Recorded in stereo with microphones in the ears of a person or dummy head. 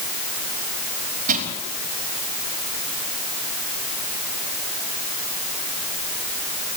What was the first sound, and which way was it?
Crushing, 40° right (ahead or behind).